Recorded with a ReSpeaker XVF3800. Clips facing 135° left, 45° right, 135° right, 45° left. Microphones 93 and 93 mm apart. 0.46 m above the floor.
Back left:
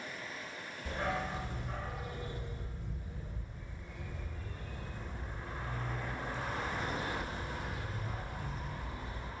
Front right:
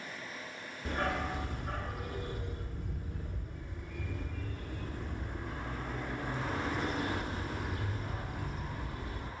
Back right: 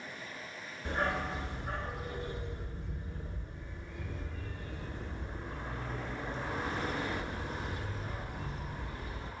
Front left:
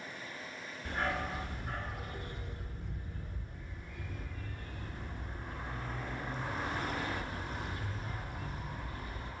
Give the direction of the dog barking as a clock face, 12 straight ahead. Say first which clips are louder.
Front right 2 dB, back right 2 dB; 2 o'clock.